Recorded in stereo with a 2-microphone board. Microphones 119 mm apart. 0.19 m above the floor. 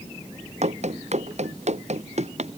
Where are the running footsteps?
70° right (ahead or behind).